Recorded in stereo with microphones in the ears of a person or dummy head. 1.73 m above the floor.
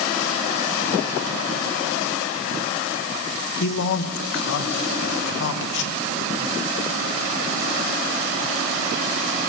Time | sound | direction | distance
3.6 | a man speaking | 65° left (ahead or behind) | 1.6 m